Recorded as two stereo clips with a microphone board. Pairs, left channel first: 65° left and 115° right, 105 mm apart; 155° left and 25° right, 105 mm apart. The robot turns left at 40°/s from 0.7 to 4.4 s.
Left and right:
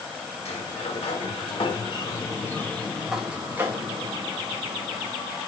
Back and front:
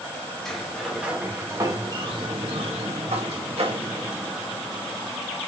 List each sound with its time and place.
0.5 s a sliding door: 70° left, 1.6 m; by 5.1 s 75° right, 1.6 m